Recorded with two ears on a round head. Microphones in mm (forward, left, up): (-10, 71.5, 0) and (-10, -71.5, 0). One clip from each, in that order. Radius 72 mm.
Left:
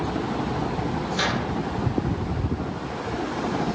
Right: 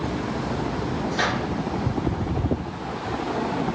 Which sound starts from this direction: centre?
A microwave, at 1.1 s.